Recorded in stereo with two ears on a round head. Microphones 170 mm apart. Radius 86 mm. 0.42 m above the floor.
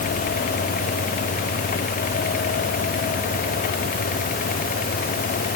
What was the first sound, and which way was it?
Only background noise.